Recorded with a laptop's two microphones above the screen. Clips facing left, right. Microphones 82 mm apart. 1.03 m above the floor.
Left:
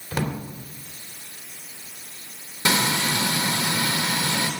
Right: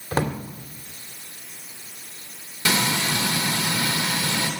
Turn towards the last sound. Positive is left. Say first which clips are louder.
# left 1 dB
turn(degrees=25)  # may be behind; listen again after turning